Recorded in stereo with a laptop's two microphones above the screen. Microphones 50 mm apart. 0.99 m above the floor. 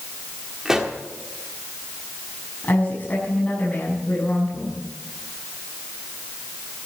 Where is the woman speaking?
35° left (ahead or behind), 7 m.